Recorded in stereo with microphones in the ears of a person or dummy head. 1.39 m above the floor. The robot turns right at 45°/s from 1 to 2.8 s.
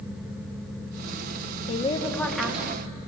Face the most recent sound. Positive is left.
turn(degrees=-165)